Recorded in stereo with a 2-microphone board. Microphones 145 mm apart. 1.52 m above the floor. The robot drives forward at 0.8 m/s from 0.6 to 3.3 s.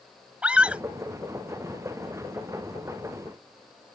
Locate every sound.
0.4 s a scream: 10° right (ahead or behind); by 0.8 s 5° right (ahead or behind)